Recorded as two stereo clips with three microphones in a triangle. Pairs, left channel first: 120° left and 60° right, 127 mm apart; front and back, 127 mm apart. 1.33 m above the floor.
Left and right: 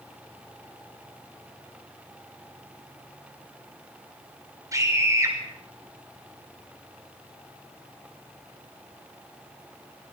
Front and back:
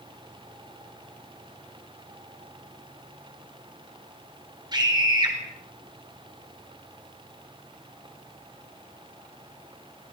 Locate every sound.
4.7 s a scream: 125° right, 5.5 m